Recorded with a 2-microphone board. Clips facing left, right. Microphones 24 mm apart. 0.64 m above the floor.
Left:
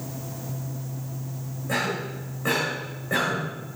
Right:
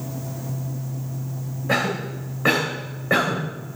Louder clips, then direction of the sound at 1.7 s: Right 4 dB; 50° right (ahead or behind).